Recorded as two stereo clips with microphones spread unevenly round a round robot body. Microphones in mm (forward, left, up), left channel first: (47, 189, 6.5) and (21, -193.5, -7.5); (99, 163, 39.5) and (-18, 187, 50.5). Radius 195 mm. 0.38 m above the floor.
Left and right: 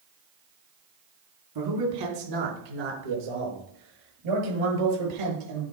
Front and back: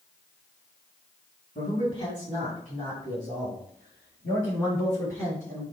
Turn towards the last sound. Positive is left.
turn(degrees=-95)